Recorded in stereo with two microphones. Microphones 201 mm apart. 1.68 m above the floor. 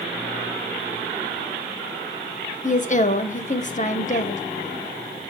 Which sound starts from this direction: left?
A woman speaking, at 2.6 s.